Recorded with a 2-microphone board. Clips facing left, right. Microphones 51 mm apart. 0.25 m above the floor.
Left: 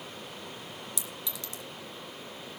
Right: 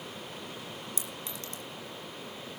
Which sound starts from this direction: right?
A clink, at 1.0 s.